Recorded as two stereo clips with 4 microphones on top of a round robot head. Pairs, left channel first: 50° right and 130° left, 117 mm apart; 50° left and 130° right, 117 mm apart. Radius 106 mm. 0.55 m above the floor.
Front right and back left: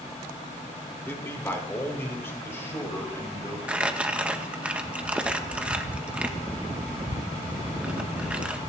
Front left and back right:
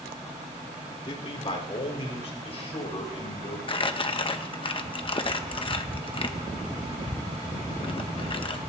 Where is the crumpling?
55° left, 1.1 m.